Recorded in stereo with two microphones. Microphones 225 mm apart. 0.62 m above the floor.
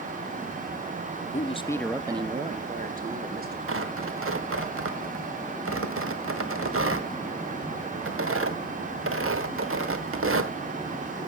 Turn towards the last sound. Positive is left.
turn(degrees=-70)  # may be behind; listen again after turning